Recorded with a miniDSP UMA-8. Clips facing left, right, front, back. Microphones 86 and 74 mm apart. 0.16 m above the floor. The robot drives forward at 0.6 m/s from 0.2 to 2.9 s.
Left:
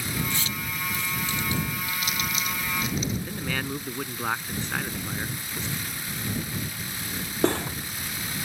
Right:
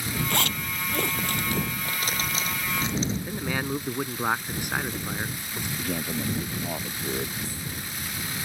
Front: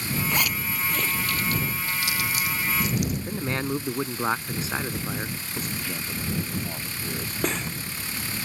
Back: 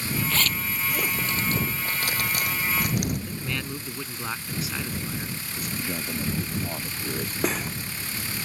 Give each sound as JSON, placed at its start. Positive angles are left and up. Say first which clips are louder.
{"t": 0.3, "sound": "a zipper", "louder": "right 4 dB, front 1 dB", "azimuth_deg": -70}
{"t": 3.3, "sound": "a man speaking", "louder": "right 2 dB, front 5 dB", "azimuth_deg": -25}
{"t": 5.8, "sound": "a man speaking", "louder": "right 6 dB, back 2 dB", "azimuth_deg": -105}
{"t": 7.4, "sound": "cutlery clinking", "louder": "left 12 dB, back 1 dB", "azimuth_deg": 95}